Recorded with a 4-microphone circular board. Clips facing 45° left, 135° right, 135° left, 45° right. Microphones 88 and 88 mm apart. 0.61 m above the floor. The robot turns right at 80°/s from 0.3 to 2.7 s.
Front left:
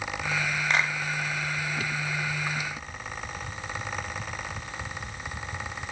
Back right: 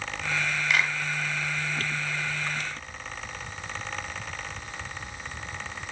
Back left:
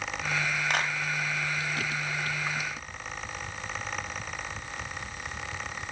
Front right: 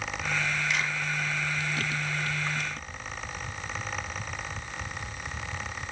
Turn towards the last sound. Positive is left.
turn(degrees=-100)